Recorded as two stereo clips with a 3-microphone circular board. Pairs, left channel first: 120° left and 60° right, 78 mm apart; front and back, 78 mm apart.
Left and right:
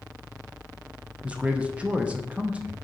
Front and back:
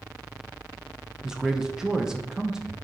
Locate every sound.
1.2 s a man speaking: 110° right, 0.5 m